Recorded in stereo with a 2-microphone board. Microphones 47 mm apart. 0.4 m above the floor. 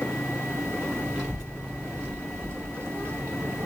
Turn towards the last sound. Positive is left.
turn(degrees=-60)  # may be behind; listen again after turning